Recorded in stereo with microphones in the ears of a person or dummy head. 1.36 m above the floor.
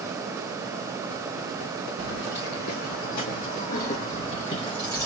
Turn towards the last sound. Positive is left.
turn(degrees=15)  # may be behind; listen again after turning